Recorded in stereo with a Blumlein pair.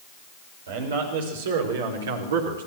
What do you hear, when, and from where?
0.7 s a man speaking: 60° right, 7 m; by 2.6 s 65° right, 4 m